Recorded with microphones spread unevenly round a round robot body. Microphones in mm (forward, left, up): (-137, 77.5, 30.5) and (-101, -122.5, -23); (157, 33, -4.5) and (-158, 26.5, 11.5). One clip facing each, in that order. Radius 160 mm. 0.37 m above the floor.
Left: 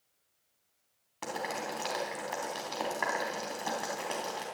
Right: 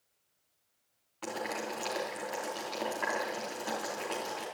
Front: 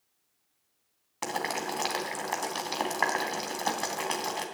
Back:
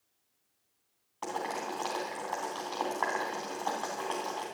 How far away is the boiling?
About 3 m.